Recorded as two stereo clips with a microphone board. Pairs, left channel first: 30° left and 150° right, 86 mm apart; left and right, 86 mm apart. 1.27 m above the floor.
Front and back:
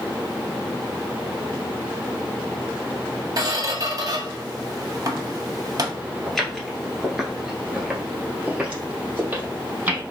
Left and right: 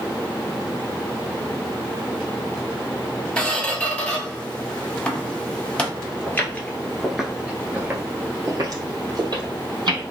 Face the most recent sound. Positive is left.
turn(degrees=-85)